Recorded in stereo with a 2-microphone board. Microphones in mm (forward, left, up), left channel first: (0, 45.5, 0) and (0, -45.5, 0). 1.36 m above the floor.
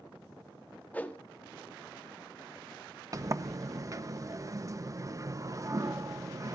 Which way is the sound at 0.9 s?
20° left (ahead or behind).